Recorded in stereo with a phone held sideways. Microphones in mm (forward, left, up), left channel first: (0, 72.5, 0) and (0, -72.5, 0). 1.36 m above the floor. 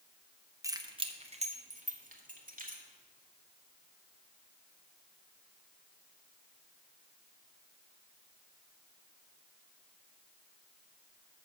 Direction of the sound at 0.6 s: 20° right (ahead or behind).